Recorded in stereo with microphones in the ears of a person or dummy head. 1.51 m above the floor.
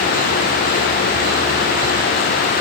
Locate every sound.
Only background noise.